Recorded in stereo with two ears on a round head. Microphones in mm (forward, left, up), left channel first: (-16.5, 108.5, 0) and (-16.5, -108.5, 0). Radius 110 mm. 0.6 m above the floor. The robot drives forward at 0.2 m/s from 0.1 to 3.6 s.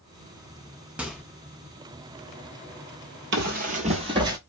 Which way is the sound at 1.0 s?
5° right (ahead or behind).